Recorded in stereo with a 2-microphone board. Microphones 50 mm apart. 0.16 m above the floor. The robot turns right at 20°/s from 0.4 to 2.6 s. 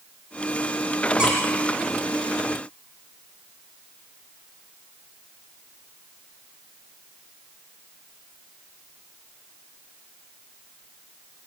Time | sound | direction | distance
1.2 | a squeak | 15° right (ahead or behind) | 6 m